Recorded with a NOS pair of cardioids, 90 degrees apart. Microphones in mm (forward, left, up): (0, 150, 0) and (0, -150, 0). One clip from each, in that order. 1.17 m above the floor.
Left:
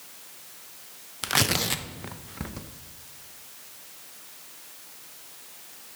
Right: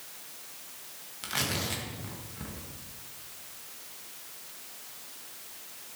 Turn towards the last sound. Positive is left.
turn(degrees=50)